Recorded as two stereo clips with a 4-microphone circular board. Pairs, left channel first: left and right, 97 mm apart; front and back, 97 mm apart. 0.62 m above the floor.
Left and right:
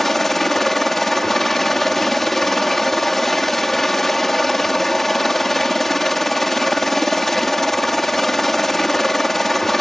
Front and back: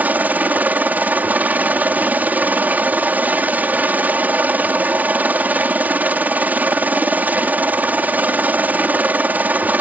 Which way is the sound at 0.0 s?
170° left.